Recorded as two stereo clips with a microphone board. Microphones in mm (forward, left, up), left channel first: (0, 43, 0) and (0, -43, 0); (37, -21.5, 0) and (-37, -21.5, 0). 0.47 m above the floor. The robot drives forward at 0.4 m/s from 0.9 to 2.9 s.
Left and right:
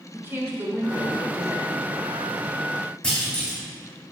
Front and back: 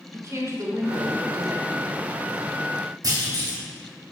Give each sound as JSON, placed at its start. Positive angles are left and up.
{"t": 0.1, "sound": "a woman speaking", "azimuth_deg": -145, "distance_m": 1.7}
{"t": 3.0, "sound": "a clunk", "azimuth_deg": 175, "distance_m": 2.5}